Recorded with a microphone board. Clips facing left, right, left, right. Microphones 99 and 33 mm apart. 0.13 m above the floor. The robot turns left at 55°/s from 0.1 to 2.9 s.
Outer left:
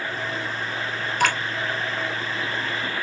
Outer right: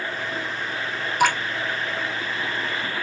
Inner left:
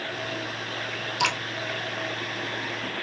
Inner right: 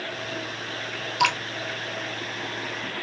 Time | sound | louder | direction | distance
1.2 | dripping | outer right 3 dB, inner right 3 dB | 15° right (ahead or behind) | 0.8 m